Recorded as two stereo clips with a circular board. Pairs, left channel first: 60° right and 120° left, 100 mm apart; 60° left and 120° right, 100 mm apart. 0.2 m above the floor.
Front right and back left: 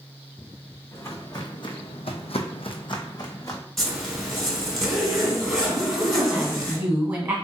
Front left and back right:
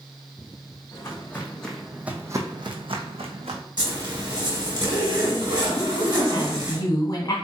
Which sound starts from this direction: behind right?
A zipper, at 3.8 s.